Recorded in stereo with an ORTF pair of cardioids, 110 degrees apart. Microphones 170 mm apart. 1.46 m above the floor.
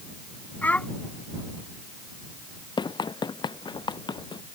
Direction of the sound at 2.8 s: 25° left.